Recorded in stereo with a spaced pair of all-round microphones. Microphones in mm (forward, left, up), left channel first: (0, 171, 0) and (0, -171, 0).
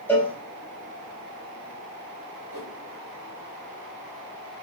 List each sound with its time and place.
0.1 s a cowbell: 5° left (ahead or behind), 4 m
2.5 s a whoosh: 75° right (ahead or behind), 3.5 m